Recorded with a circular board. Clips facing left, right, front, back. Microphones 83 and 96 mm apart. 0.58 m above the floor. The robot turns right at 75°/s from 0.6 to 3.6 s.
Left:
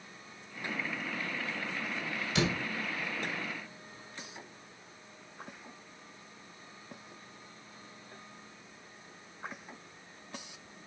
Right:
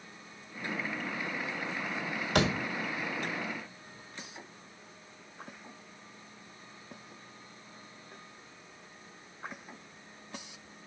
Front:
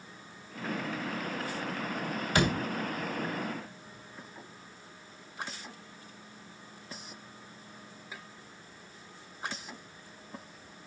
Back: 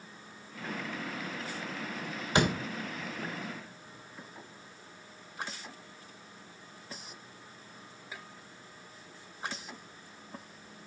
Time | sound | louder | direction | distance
2.4 | a door slam | right 3 dB, back 1 dB | 110° right | 1.6 m